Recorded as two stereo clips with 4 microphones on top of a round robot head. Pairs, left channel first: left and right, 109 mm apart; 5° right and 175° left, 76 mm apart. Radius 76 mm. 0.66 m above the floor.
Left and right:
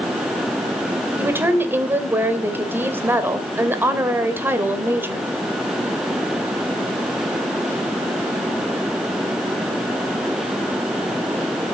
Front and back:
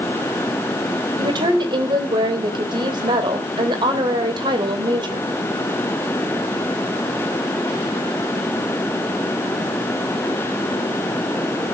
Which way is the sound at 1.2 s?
160° right.